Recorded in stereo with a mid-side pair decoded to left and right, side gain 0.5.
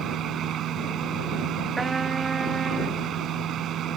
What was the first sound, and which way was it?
A fan, 60° right.